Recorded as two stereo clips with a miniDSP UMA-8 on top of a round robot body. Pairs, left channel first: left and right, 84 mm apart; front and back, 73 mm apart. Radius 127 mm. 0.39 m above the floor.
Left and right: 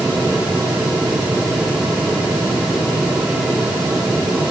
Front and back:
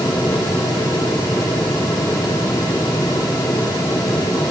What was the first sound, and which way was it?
Only background noise.